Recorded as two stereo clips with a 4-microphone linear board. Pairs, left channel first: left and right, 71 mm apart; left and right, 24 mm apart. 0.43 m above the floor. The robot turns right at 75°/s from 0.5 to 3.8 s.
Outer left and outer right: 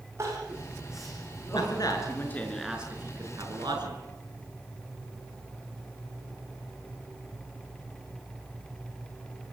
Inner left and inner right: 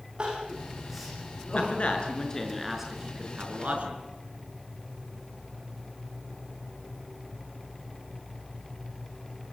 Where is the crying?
40° right (ahead or behind), 9 m; by 1.8 s 60° left (ahead or behind), 9 m.